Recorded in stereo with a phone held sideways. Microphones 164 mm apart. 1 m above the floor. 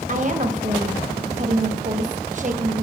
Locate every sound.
0.1 s a woman speaking: 50° right (ahead or behind), 1.1 m